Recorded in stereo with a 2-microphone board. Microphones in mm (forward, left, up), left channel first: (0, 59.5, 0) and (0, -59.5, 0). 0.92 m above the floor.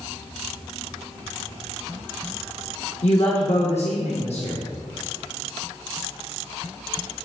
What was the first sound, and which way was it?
A woman speaking, 65° left (ahead or behind).